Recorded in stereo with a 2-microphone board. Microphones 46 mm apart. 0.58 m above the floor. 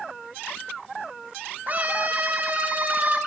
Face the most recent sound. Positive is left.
turn(degrees=-40)  # may be behind; listen again after turning